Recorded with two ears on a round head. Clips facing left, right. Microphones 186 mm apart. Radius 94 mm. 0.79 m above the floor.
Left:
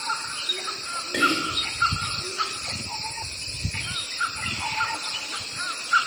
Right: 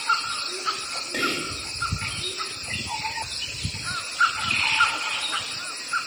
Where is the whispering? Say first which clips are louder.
Left 3 dB; 10° left (ahead or behind), 1.1 m.